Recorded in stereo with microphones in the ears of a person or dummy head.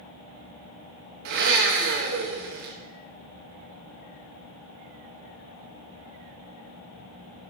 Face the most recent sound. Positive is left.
turn(degrees=-60)  # may be behind; listen again after turning